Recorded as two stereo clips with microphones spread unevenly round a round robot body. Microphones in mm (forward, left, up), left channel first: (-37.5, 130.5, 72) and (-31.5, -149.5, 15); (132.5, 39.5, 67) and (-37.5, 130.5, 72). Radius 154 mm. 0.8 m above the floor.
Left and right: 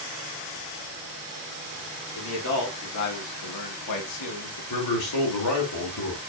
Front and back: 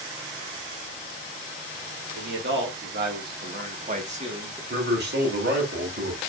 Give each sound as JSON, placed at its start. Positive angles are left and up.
{"t": 2.1, "sound": "a man speaking", "azimuth_deg": 135, "distance_m": 2.0}
{"t": 4.7, "sound": "a man speaking", "azimuth_deg": 120, "distance_m": 2.5}